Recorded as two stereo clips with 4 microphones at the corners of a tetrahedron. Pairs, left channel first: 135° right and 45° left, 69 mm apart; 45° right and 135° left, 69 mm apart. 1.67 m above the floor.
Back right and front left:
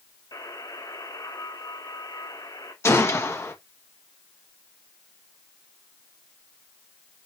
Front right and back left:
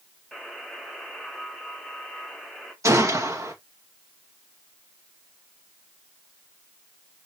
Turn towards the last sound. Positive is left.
turn(degrees=175)